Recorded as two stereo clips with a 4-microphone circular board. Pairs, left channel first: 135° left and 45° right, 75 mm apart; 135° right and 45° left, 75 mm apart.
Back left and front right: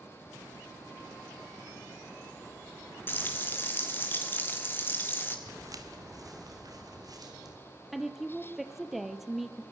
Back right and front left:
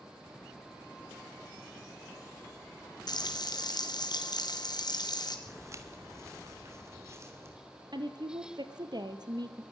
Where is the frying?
165° right, 1.9 m.